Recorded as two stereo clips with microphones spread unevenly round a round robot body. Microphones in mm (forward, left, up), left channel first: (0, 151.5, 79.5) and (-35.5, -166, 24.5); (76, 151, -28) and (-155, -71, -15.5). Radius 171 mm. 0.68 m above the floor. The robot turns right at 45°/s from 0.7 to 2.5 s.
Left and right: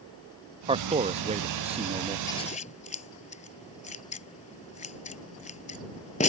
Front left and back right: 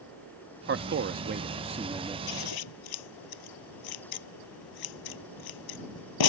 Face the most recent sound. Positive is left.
turn(degrees=15)